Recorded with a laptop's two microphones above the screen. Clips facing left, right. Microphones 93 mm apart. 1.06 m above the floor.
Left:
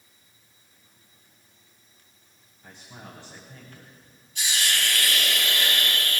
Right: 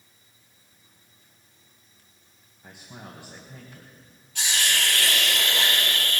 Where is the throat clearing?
I don't hear throat clearing.